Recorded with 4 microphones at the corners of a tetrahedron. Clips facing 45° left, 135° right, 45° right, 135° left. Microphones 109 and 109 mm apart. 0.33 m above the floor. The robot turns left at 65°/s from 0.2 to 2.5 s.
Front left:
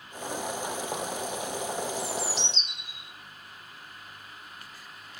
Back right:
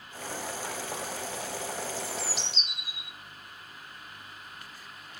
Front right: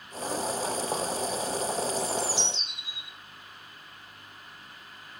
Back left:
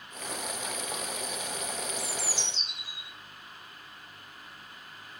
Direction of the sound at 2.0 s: 25° right.